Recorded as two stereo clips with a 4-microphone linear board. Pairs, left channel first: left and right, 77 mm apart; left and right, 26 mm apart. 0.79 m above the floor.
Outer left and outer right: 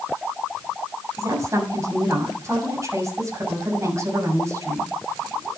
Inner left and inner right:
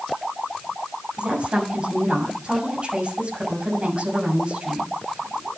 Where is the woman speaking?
35° right (ahead or behind), 6.5 m.